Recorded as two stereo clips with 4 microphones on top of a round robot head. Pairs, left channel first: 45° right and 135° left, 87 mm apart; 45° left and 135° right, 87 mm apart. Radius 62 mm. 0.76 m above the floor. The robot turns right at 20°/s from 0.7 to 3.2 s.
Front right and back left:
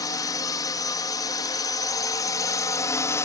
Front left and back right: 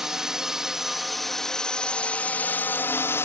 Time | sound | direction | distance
0.0 | a drone | 55° right | ?